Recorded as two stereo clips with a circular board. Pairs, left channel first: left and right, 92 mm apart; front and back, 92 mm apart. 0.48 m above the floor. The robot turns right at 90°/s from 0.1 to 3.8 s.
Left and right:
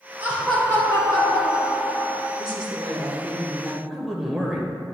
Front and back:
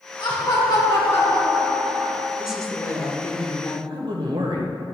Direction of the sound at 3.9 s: Straight behind.